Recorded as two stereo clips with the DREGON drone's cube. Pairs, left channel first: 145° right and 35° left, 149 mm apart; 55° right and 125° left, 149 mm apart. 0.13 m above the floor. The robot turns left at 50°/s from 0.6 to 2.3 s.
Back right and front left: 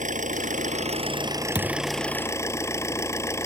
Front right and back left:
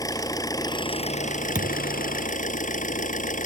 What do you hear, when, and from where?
0.0 s an engine running: 10° left; by 3.5 s 75° right
1.6 s a thud: 155° left; by 1.9 s 140° left